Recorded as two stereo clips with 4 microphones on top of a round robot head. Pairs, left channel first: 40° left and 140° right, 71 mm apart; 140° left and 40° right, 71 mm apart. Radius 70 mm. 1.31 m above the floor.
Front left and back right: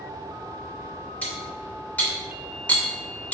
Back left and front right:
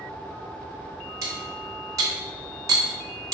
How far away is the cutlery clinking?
About 0.5 m.